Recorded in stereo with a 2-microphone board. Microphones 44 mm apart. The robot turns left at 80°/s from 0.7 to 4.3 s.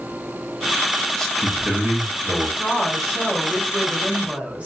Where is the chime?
I don't hear a chime.